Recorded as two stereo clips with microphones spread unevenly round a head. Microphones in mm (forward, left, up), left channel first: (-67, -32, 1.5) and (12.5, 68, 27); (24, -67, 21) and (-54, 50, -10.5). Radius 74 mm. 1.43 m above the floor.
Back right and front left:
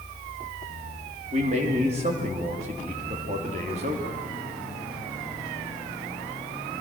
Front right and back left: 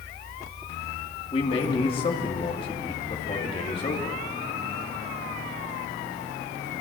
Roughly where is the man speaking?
Ahead.